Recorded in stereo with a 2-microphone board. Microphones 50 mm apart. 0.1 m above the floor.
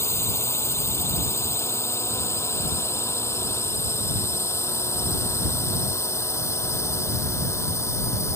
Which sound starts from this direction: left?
A drone, at 0.0 s.